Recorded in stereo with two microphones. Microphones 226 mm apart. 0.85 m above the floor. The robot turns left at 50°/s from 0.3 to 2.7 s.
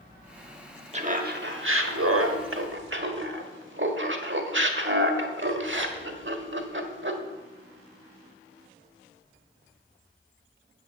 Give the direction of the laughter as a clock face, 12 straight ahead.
1 o'clock.